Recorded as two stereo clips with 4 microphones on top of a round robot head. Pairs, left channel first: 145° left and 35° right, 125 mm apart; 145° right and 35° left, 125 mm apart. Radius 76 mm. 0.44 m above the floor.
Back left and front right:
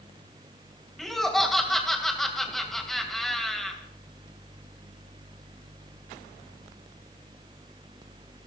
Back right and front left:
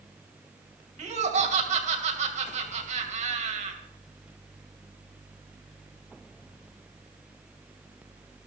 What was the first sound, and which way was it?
Laughter, 55° left.